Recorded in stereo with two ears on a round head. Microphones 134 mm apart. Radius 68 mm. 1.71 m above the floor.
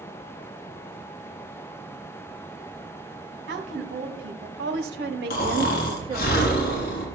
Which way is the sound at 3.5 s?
75° right (ahead or behind).